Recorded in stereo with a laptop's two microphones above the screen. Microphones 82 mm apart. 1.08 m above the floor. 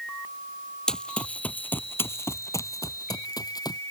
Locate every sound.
0.9 s running footsteps: 10° left (ahead or behind); by 3.8 s 55° left (ahead or behind)